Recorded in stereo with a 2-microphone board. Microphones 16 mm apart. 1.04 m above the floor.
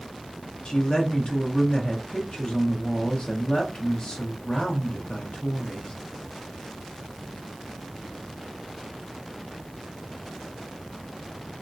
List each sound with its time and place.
0.7 s a woman speaking: 65° left (ahead or behind), 1.0 m